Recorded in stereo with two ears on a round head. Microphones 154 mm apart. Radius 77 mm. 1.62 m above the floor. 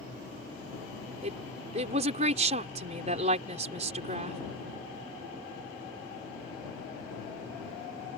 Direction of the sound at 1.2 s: 40° right (ahead or behind).